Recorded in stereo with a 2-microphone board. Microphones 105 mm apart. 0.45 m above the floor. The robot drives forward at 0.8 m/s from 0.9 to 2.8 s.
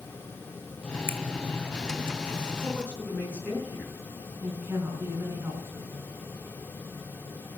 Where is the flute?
No flute in this recording.